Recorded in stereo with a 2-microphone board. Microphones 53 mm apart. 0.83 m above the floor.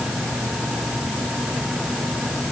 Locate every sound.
Only background noise.